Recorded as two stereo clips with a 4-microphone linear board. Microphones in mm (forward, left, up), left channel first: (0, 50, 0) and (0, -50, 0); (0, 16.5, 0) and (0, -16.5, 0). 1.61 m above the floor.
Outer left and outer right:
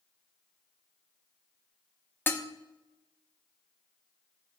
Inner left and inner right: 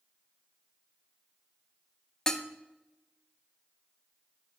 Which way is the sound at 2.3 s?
20° left (ahead or behind).